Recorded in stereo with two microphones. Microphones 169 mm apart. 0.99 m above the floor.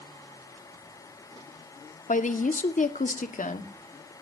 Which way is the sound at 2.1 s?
50° left (ahead or behind).